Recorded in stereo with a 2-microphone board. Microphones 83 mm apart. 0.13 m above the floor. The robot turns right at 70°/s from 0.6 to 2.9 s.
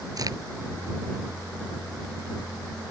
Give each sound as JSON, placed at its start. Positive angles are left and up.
{"t": 0.2, "sound": "a crack", "side_deg": -55}